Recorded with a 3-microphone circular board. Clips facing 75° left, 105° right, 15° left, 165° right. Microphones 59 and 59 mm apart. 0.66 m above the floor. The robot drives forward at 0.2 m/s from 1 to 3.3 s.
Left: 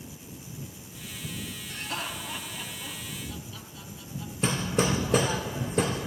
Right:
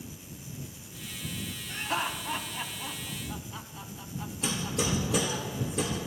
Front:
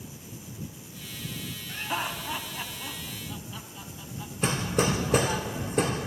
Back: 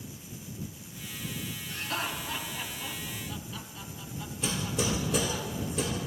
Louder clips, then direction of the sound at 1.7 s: Right 5 dB, front 3 dB; 40° right.